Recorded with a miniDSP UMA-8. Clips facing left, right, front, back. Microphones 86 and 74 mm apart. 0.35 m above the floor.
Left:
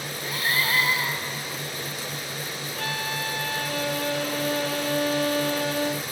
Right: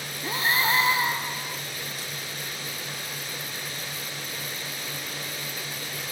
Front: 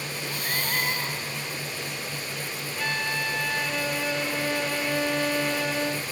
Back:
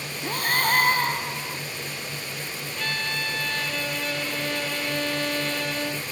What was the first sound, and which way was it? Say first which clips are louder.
Breathing: right 2 dB, back 9 dB; 155° right.